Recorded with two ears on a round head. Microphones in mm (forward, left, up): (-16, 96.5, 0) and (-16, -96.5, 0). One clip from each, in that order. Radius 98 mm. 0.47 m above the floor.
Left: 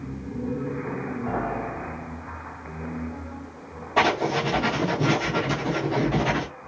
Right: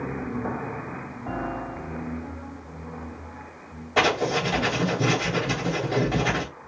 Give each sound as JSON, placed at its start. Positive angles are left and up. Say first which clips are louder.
{"t": 1.3, "sound": "a piano", "louder": "left 2 dB", "side_deg": 5, "distance_m": 1.0}
{"t": 4.0, "sound": "writing", "louder": "even", "side_deg": -25, "distance_m": 2.5}